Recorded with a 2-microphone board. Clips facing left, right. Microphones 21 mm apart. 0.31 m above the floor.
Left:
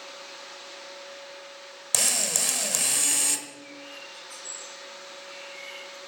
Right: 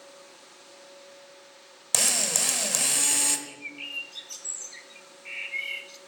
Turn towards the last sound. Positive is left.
turn(degrees=-55)  # may be behind; listen again after turning